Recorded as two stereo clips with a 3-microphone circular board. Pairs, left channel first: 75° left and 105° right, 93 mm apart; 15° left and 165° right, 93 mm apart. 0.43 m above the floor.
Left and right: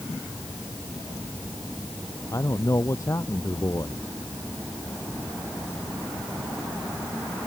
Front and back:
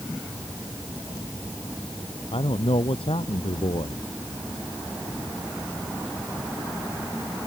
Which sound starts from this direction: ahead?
A man speaking, at 2.3 s.